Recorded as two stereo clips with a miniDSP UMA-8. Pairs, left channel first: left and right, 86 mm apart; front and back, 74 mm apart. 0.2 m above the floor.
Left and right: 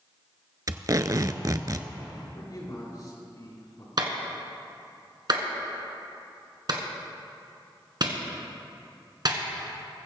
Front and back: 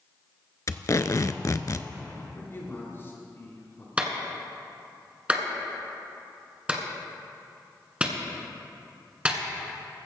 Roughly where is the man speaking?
Ahead left.